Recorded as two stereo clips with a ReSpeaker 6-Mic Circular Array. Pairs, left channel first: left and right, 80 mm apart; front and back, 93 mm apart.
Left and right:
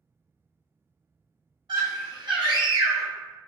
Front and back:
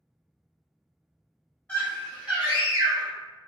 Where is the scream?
75° right, 0.9 m; by 3.1 s 145° right, 0.7 m.